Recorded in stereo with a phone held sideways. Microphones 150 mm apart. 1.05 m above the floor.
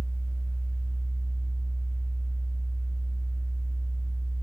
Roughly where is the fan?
Right.